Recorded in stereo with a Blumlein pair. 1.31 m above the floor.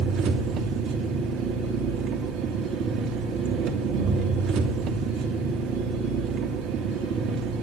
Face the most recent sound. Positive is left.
turn(degrees=-35)